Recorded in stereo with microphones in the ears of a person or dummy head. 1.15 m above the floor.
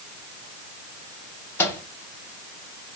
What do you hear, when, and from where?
1.6 s a microwave: 15° left (ahead or behind), 1.2 m